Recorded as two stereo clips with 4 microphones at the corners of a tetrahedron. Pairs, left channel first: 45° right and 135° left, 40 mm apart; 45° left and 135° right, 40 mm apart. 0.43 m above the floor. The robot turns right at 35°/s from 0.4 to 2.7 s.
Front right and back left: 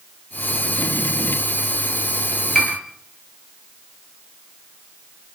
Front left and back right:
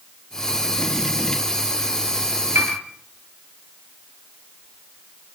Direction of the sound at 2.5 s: 130° right.